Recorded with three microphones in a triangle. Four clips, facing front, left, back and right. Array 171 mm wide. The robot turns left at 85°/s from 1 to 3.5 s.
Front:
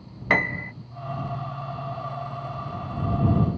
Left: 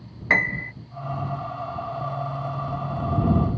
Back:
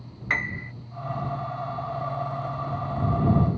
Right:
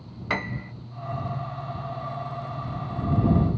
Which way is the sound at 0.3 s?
15° left.